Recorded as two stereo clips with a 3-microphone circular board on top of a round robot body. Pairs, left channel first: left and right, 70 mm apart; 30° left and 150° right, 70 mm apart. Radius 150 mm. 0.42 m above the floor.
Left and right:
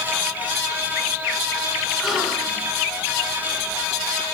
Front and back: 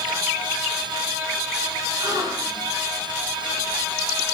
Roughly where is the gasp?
Behind.